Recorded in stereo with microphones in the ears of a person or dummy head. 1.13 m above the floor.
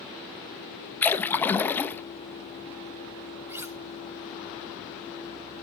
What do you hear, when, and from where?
1.0 s a splash: 10° left (ahead or behind), 0.6 m
3.5 s cutlery clinking: 10° right (ahead or behind), 0.7 m